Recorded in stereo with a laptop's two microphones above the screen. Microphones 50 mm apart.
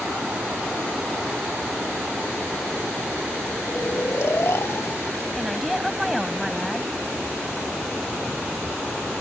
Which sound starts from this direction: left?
Snoring, at 3.7 s.